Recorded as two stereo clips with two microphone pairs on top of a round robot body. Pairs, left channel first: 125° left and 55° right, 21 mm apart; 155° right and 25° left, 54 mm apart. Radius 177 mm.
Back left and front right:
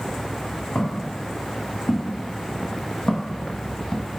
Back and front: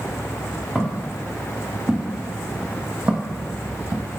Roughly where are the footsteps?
Behind left.